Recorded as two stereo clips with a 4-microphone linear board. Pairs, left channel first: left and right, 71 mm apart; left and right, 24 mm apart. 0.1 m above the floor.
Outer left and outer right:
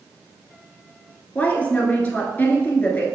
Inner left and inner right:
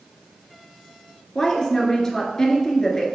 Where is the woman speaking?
20° left (ahead or behind), 1.3 m.